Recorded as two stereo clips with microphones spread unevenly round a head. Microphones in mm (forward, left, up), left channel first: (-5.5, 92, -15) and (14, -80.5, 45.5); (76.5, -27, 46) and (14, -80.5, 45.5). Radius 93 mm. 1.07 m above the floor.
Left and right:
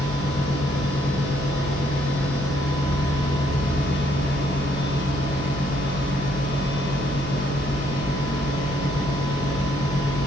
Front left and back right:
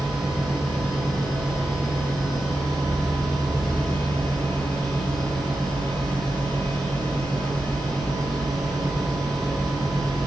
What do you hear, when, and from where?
0.0 s a machine running: 125° left, 7.5 m